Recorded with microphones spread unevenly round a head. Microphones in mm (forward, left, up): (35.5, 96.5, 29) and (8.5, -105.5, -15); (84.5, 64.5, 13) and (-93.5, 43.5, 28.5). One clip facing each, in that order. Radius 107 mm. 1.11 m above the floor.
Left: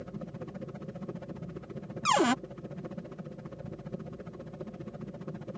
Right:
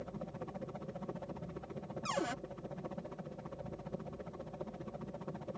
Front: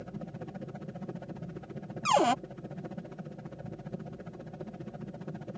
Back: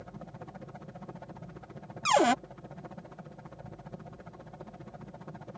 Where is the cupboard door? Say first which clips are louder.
Left 12 dB, back 1 dB; 100° left.